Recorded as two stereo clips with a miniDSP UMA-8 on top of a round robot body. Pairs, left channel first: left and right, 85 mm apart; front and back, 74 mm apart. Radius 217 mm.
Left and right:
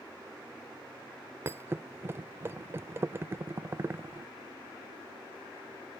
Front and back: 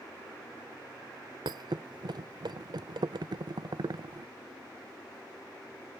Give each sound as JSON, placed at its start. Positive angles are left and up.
{"t": 1.4, "sound": "a thud", "azimuth_deg": -155}